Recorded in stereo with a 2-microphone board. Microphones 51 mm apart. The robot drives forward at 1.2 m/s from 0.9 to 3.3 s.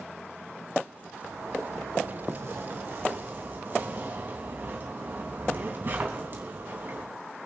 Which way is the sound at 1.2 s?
80° right.